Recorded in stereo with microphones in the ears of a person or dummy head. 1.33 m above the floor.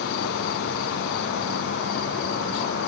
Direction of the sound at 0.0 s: 60° left (ahead or behind).